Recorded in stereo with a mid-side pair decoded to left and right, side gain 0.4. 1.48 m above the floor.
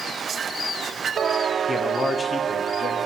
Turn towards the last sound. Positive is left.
turn(degrees=55)